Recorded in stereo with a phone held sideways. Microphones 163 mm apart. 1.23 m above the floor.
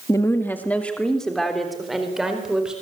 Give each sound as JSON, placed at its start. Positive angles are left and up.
{"t": 0.1, "sound": "a woman speaking", "side_deg": 20, "distance_m": 1.7}